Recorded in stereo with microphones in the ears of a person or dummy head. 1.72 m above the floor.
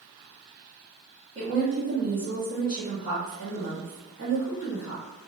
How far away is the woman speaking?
About 1.5 m.